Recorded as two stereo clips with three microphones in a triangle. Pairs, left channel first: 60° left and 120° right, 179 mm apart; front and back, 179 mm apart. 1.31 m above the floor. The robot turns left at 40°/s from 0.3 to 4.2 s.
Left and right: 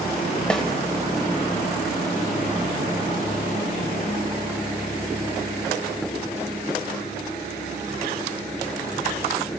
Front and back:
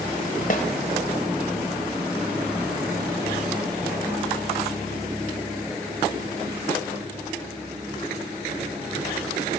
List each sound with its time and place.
0.5 s a snare drum: 25° right, 1.7 m; by 0.7 s 30° right, 1.7 m